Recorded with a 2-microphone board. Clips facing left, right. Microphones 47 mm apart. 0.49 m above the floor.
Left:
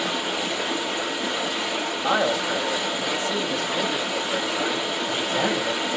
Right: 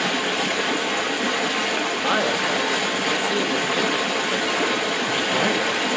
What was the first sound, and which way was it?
Running water, 65° right (ahead or behind).